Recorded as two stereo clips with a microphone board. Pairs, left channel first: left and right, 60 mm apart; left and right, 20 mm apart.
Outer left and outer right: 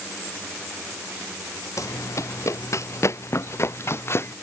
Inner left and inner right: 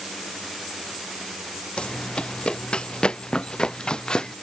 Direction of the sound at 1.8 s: 65° left (ahead or behind).